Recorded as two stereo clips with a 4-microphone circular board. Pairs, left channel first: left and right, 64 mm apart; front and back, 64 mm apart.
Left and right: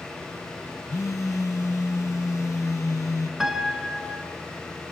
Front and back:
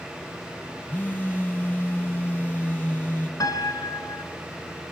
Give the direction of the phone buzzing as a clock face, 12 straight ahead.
10 o'clock.